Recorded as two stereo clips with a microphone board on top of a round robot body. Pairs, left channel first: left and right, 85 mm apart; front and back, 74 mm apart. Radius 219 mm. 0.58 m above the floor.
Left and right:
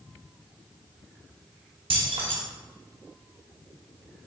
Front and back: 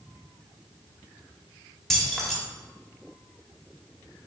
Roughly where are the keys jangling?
Right.